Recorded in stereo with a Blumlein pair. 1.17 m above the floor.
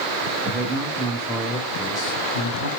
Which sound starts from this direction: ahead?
A man speaking, at 0.4 s.